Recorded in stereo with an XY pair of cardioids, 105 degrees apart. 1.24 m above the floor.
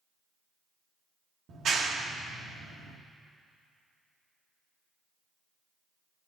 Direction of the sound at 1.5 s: 60° right.